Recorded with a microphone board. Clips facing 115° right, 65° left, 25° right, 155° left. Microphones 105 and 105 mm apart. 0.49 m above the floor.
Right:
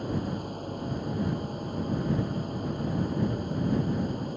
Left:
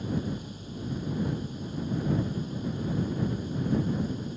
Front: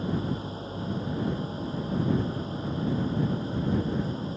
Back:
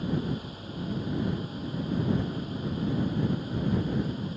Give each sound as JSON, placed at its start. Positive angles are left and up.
{"t": 0.0, "sound": "an engine running", "azimuth_deg": -80}